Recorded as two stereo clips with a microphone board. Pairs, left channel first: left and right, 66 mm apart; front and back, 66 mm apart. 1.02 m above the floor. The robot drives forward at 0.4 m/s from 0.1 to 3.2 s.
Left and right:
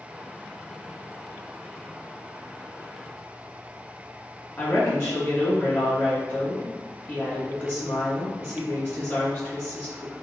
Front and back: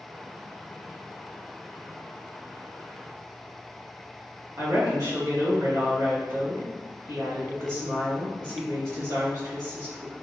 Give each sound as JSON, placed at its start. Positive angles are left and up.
{"t": 4.6, "sound": "a woman speaking", "azimuth_deg": 160, "distance_m": 1.6}